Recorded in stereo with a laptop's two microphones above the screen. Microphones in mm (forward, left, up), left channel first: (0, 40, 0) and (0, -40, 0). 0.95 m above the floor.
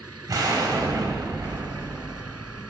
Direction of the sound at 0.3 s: 45° right (ahead or behind).